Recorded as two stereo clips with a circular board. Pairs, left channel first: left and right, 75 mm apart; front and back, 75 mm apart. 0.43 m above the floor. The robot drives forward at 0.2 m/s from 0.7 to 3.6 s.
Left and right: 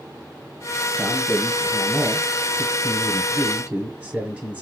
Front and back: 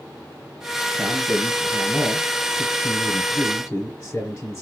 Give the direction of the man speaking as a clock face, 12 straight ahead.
1 o'clock.